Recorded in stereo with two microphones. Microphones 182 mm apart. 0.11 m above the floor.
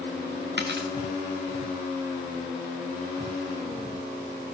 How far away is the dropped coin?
About 3 m.